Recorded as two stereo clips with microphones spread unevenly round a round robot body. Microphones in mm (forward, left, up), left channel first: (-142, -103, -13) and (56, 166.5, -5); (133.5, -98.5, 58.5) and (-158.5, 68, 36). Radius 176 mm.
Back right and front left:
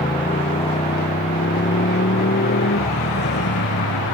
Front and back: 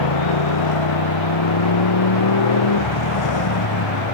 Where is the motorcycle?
50° right; by 4.2 s 65° right.